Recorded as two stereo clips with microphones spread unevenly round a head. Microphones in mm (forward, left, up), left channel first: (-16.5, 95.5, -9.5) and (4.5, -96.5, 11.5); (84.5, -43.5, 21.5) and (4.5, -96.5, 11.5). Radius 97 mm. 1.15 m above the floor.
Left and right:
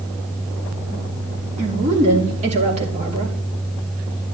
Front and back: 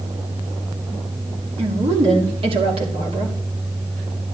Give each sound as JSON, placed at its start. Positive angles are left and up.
{"t": 1.6, "sound": "a woman speaking", "azimuth_deg": -140, "distance_m": 3.5}